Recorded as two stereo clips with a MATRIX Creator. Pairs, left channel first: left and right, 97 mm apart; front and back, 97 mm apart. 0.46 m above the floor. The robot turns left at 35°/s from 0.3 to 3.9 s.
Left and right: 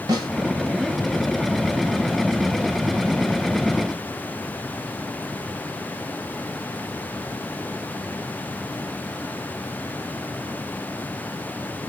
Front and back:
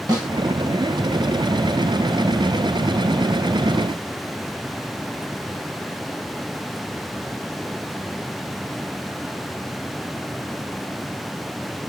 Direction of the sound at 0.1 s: 135° right.